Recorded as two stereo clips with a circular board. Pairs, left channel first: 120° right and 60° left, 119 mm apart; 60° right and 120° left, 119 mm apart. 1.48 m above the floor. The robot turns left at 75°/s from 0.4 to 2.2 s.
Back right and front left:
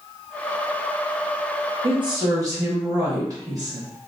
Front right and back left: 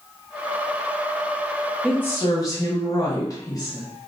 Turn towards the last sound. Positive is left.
turn(degrees=0)